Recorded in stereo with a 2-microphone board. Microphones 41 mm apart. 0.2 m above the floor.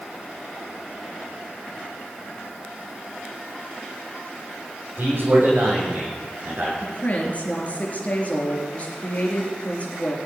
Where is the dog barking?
I don't hear a dog barking.